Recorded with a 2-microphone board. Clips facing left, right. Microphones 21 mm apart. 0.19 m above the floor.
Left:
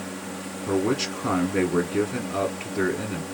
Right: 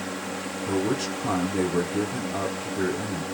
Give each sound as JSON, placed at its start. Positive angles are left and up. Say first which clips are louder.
{"t": 0.7, "sound": "a man speaking", "louder": "left 2 dB", "side_deg": 35, "distance_m": 1.2}